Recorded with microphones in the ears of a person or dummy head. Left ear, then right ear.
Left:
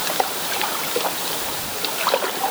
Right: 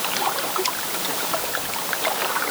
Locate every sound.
Only background noise.